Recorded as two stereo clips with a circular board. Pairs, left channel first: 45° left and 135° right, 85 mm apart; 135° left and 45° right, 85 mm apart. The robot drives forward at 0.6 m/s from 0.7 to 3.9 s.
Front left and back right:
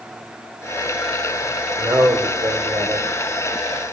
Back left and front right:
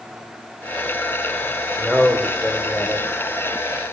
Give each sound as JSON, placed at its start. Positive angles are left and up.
{"t": 1.8, "sound": "a man speaking", "azimuth_deg": -135, "distance_m": 1.2}